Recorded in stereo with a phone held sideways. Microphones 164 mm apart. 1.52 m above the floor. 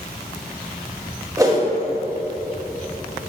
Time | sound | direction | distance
1.4 | a whoosh | 20° right (ahead or behind) | 1.2 m